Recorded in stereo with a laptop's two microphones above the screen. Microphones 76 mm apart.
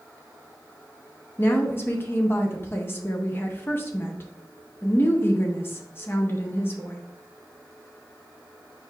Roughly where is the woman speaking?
Left.